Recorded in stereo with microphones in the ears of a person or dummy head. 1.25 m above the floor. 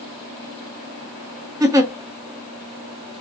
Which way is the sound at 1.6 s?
15° right (ahead or behind).